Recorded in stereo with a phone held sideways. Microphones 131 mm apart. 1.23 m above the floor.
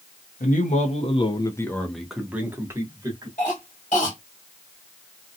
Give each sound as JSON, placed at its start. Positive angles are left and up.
{"t": 0.4, "sound": "a man speaking", "side_deg": 75, "distance_m": 0.8}
{"t": 3.4, "sound": "a cough", "side_deg": 65, "distance_m": 1.3}